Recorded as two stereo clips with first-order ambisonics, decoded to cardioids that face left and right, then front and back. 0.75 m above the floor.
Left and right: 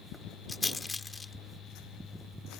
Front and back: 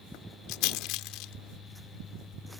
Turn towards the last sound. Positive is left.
turn(degrees=10)